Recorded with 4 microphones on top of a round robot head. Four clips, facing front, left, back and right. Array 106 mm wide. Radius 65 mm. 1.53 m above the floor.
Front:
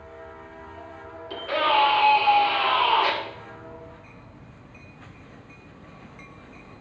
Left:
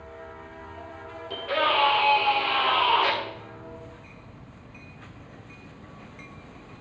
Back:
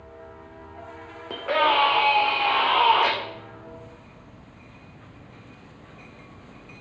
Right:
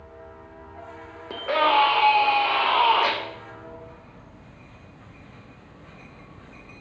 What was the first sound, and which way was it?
A scream, 140° right.